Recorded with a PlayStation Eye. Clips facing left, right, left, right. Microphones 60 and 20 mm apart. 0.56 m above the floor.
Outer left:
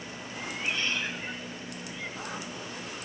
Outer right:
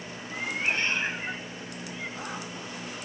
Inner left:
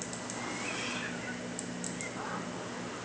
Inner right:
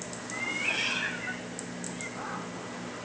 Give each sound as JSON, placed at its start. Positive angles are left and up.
{"t": 0.3, "sound": "a cat meowing", "side_deg": -55}